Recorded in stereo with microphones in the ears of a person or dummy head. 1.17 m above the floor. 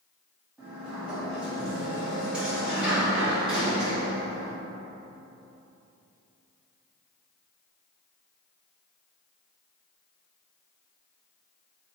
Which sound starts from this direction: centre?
A sliding door, at 0.6 s.